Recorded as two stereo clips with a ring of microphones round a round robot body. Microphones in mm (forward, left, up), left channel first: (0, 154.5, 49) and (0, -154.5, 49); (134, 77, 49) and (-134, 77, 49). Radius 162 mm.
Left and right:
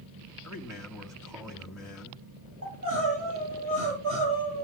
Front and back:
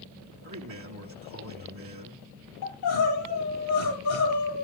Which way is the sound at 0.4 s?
170° right.